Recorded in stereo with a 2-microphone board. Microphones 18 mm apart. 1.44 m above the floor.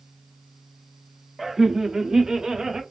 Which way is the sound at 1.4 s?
5° right (ahead or behind).